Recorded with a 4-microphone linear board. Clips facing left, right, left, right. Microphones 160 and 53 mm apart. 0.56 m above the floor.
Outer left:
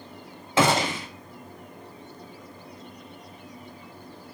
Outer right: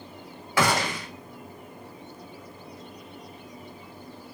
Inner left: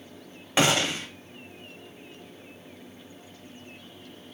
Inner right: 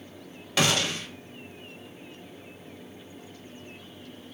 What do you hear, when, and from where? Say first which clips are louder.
0.6 s a gunshot: outer left 3 dB, inner left 2 dB; 20° left (ahead or behind), 0.6 m